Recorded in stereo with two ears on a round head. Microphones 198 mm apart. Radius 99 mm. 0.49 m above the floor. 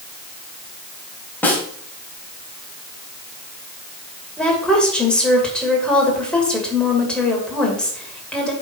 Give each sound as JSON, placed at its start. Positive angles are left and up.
{"t": 1.4, "sound": "a snare drum", "side_deg": 10, "distance_m": 2.0}
{"t": 4.4, "sound": "a woman speaking", "side_deg": 5, "distance_m": 2.5}